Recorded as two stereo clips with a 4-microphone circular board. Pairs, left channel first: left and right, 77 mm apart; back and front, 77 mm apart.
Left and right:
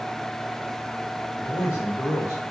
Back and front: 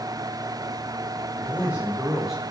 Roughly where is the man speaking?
Ahead left.